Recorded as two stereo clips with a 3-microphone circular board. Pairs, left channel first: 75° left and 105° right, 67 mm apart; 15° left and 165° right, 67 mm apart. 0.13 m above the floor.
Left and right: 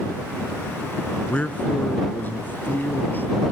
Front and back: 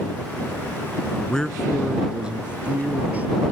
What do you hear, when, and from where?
1.3 s a man speaking: 60° left; by 3.5 s 130° left